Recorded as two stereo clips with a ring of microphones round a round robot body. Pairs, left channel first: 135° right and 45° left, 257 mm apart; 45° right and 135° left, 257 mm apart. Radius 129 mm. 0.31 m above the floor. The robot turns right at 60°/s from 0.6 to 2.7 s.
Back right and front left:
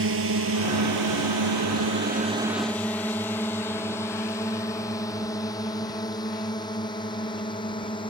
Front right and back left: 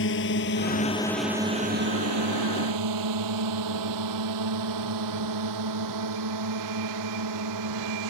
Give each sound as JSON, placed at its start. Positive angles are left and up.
{"t": 0.0, "sound": "a drone", "azimuth_deg": 0}